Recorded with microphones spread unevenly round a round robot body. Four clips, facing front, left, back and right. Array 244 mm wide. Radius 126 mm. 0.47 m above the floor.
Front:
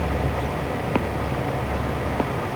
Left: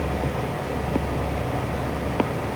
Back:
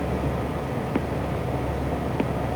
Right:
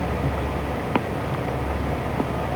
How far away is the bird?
I don't hear a bird.